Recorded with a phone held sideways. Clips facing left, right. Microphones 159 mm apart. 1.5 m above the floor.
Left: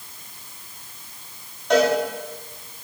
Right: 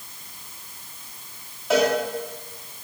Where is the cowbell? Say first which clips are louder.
Left 2 dB; 5° right (ahead or behind), 4 m.